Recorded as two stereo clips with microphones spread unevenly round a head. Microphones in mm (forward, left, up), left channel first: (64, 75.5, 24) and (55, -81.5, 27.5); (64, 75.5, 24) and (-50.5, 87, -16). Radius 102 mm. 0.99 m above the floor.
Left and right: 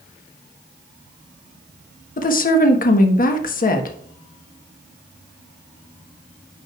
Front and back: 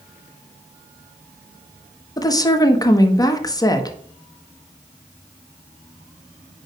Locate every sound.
2.2 s a woman speaking: 55° left, 1.2 m